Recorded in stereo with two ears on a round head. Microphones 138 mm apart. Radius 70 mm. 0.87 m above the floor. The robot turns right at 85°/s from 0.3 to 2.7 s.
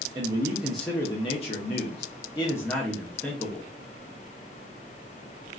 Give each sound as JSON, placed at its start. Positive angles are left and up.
{"t": 0.1, "sound": "a man speaking", "azimuth_deg": -35, "distance_m": 0.6}